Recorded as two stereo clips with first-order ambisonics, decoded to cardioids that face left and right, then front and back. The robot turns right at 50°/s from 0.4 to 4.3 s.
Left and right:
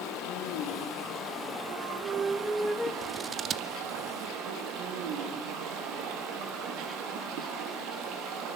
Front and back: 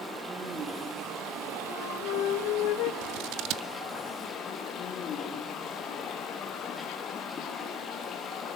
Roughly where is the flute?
Ahead right.